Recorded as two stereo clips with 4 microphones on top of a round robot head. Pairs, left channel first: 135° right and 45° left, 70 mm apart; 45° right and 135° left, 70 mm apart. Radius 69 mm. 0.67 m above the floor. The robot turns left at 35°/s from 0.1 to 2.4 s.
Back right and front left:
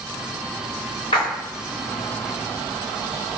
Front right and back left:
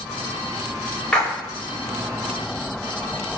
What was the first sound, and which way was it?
A splash, 120° right.